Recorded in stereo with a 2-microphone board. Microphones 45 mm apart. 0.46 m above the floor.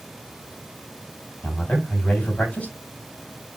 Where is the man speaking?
25° left (ahead or behind), 2.5 m.